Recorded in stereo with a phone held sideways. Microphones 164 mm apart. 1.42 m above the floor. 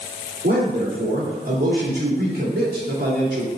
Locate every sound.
0.4 s a man speaking: 85° right, 3.5 m